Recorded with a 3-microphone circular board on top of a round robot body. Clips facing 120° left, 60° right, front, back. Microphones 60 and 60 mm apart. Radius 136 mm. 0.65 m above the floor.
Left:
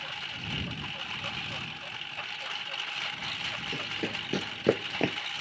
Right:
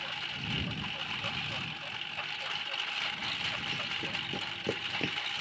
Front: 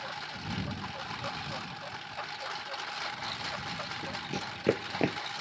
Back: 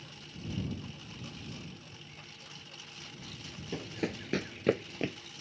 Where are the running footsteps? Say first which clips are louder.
Left 2 dB, back 1 dB; 175° left; by 5.2 s 55° left.